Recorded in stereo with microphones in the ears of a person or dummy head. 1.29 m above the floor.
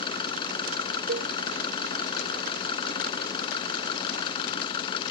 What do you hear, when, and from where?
0.0 s an engine running: 30° left (ahead or behind)
1.1 s a cowbell: 55° right (ahead or behind)